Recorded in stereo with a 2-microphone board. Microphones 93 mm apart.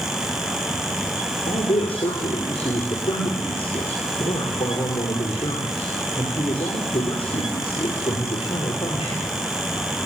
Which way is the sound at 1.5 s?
80° left.